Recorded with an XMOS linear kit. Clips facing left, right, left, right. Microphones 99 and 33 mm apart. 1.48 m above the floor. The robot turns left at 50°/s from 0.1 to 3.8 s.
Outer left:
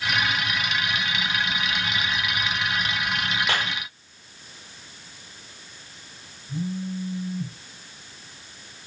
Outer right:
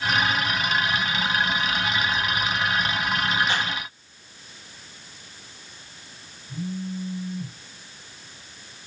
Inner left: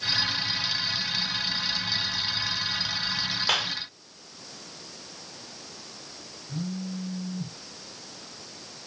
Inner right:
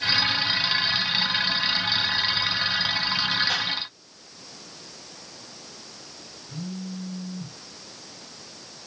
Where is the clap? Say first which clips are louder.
Even, even; 80° left, 4.5 m; by 3.7 s 70° left (ahead or behind), 4.5 m.